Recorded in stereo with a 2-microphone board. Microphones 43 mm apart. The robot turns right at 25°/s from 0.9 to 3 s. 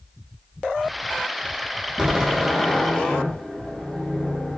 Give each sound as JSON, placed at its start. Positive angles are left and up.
{"t": 2.0, "sound": "a door slam", "side_deg": -10, "distance_m": 3.5}